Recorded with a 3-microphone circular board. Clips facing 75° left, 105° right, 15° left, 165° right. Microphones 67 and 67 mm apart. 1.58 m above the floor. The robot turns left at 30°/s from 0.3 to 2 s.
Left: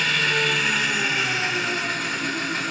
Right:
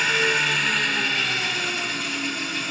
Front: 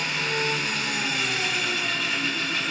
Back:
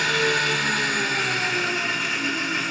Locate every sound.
0.0 s an engine running: 170° left, 4 m; by 2.7 s 120° left, 4 m